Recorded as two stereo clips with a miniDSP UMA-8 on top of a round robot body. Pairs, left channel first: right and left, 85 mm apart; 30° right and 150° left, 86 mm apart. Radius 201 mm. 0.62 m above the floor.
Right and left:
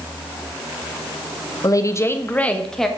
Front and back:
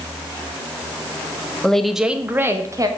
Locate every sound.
1.6 s a woman speaking: 105° right, 1.4 m; by 2.9 s 175° right, 1.7 m